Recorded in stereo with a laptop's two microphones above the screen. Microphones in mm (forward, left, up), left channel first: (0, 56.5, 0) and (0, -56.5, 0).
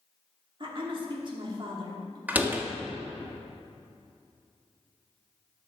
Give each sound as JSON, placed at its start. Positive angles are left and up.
{"t": 0.6, "sound": "a woman speaking", "side_deg": -45, "distance_m": 1.9}
{"t": 2.3, "sound": "a door slam", "side_deg": -15, "distance_m": 0.9}